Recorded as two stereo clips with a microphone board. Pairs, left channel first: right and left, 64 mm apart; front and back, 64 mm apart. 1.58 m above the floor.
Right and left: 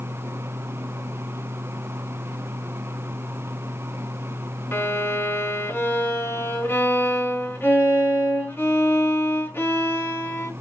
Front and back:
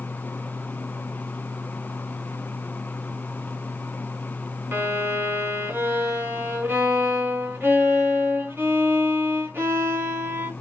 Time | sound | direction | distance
4.7 | a violin | 130° right | 2.5 m